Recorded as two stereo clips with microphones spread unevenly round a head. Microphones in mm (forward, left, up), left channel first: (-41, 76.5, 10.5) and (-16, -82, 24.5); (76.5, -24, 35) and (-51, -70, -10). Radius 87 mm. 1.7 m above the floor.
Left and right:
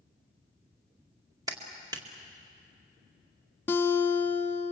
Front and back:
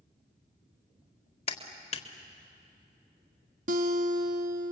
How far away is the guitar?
About 1.3 m.